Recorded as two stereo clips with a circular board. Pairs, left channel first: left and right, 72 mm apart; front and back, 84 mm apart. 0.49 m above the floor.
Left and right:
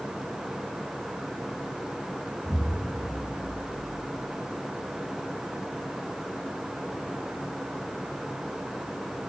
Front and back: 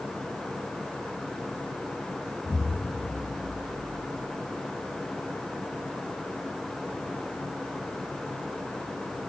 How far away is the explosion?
About 1.7 m.